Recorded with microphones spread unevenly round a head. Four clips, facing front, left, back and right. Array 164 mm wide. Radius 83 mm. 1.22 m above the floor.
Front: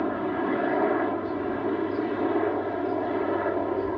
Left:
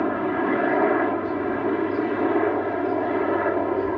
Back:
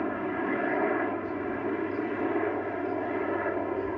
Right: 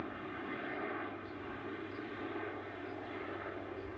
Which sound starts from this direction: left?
A helicopter, at 0.0 s.